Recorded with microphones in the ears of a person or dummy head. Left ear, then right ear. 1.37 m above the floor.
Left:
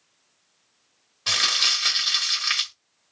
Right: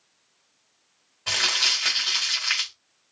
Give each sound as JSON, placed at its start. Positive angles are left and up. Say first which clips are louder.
{"t": 1.3, "sound": "crumpling", "louder": "left 1 dB", "side_deg": 30, "distance_m": 1.8}